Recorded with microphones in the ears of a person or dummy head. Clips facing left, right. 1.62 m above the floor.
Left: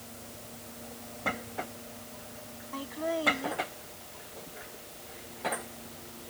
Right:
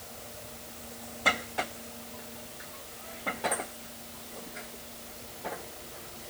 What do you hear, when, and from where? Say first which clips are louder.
2.7 s laughter: left 15 dB; 85° left